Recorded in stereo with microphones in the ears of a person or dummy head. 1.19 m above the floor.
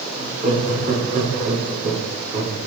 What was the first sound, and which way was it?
Laughter, 45° right (ahead or behind).